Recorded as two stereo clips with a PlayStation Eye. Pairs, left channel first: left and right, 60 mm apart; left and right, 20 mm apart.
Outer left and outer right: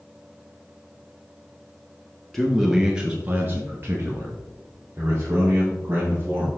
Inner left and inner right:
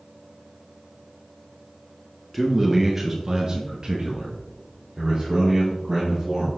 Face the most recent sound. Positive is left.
turn(degrees=-40)  # may be behind; listen again after turning